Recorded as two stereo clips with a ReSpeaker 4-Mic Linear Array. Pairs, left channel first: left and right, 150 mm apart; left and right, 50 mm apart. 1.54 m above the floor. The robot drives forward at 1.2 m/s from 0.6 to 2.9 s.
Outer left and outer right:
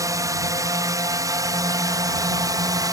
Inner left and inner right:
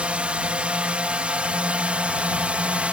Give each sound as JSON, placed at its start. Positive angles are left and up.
{"t": 0.0, "sound": "a drone", "side_deg": -20}